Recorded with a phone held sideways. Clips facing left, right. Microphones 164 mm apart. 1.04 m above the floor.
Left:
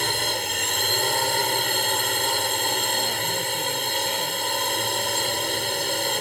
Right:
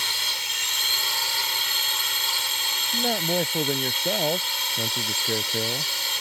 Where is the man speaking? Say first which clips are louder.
Right 3 dB; 55° right (ahead or behind).